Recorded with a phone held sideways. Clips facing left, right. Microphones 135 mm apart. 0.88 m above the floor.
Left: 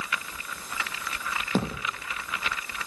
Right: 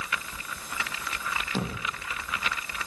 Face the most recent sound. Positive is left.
turn(degrees=55)  # may be behind; listen again after turning